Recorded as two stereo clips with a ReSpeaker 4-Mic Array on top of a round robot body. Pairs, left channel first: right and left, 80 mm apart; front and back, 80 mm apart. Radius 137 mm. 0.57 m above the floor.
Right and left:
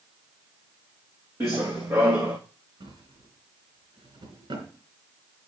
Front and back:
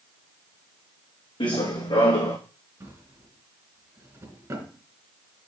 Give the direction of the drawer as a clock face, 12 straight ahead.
8 o'clock.